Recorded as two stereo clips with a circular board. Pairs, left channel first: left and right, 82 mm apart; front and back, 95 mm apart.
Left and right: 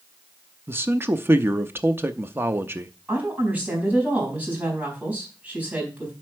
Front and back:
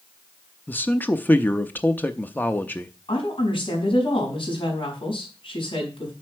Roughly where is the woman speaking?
Ahead.